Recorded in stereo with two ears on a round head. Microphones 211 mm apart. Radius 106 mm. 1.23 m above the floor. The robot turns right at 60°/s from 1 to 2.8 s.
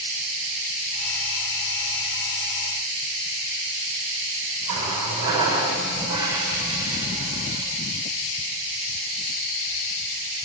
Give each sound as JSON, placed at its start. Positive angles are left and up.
{"t": 4.7, "sound": "a running tap", "side_deg": -20, "distance_m": 4.5}